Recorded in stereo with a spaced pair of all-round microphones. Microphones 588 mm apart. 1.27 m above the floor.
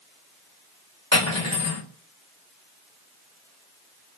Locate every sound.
1.1 s cutlery clinking: 25° left (ahead or behind), 1.4 m